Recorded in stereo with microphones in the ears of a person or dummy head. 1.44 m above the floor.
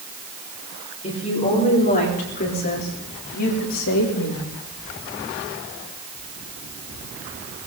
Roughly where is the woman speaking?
Left.